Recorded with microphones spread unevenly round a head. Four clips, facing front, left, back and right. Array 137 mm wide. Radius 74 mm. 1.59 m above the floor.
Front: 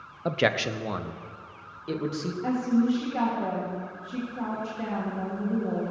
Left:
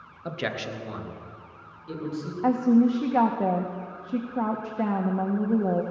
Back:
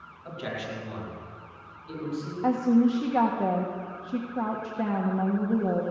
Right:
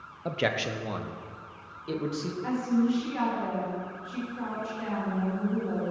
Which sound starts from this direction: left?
A woman speaking, at 2.4 s.